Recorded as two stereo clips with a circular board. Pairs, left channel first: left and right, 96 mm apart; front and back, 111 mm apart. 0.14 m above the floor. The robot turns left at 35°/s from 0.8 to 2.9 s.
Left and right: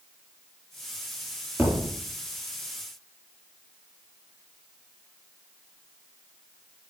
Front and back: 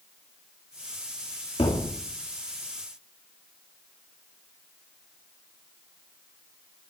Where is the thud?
20° right, 2.5 m; by 2.0 s 35° right, 2.5 m.